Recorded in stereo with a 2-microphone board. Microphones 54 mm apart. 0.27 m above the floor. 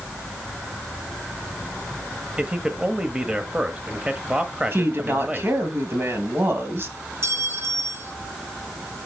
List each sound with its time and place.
2.4 s a man speaking: 20° right (ahead or behind), 1.0 m
4.7 s a woman speaking: 45° right (ahead or behind), 2 m
7.2 s a clink: 50° right (ahead or behind), 1.3 m